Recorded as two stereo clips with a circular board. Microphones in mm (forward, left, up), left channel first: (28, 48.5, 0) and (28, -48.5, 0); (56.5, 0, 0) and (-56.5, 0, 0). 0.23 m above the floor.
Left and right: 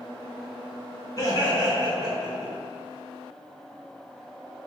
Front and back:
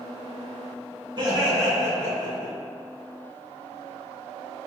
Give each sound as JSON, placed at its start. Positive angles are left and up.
{"t": 1.2, "sound": "laughter", "azimuth_deg": 135, "distance_m": 1.8}